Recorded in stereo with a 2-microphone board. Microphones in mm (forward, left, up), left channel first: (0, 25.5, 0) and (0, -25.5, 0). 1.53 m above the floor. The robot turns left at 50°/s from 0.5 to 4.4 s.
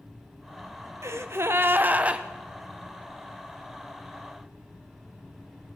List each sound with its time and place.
1.0 s a gasp: 95° right, 0.7 m; by 2.2 s 155° right, 0.7 m